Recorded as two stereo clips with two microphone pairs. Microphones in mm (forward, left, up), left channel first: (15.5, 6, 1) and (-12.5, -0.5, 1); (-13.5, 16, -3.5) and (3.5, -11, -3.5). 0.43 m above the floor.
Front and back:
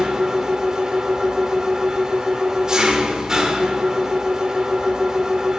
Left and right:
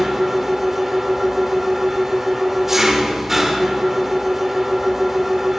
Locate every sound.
0.0 s an engine running: 125° right, 1.1 m